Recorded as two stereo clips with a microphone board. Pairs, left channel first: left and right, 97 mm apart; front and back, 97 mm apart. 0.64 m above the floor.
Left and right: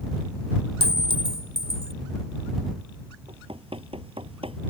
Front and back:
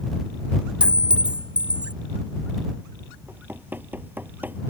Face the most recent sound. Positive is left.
turn(degrees=-110)